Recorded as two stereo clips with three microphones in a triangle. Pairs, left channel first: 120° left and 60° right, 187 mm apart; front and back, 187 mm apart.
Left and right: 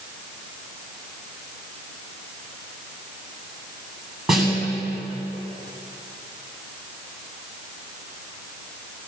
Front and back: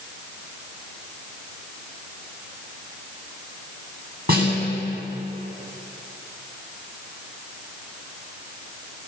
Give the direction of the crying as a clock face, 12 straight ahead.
No crying in this recording.